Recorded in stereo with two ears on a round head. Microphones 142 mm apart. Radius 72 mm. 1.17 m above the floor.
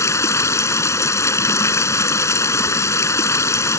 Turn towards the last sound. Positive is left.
turn(degrees=20)  # may be behind; listen again after turning